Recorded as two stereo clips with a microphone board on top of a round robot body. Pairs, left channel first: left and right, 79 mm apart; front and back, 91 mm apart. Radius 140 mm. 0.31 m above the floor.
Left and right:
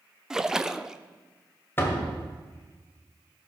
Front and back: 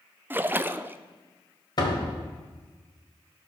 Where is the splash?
160° right, 0.6 m.